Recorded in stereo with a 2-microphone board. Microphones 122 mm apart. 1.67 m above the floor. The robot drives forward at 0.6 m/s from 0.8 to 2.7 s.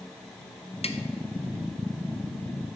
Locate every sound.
0.8 s tapping: 55° left (ahead or behind), 0.5 m; by 1.0 s 45° left (ahead or behind), 0.6 m